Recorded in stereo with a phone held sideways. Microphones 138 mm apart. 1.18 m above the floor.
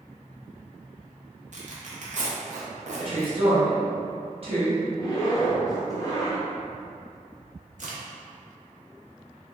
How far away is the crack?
About 0.6 m.